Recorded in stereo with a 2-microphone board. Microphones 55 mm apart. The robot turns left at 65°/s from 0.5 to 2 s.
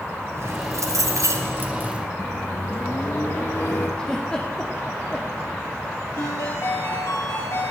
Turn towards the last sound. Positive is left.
turn(degrees=85)